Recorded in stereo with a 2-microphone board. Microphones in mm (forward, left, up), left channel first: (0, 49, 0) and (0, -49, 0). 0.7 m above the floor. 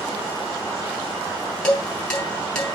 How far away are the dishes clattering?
About 3.5 m.